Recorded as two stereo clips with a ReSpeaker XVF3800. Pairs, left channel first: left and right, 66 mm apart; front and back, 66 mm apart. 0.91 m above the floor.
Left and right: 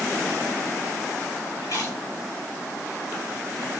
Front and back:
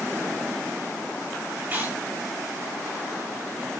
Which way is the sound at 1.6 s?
120° left.